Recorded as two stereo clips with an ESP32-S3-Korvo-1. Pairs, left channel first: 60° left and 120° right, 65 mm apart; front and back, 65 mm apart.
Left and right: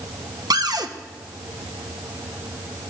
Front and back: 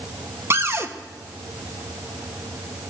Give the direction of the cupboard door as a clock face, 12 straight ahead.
4 o'clock.